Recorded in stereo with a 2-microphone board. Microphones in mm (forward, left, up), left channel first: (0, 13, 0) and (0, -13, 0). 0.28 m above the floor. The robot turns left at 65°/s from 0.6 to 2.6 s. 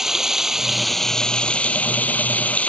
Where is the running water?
160° right; by 2.7 s 70° left.